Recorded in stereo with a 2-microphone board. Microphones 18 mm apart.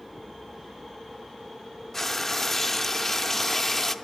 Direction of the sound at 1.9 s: 20° left (ahead or behind).